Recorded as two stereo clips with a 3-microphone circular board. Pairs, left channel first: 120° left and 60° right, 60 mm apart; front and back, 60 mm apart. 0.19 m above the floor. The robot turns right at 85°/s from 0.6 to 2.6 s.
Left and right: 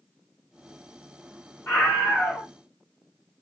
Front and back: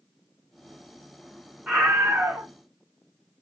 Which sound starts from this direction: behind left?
A scream, at 1.7 s.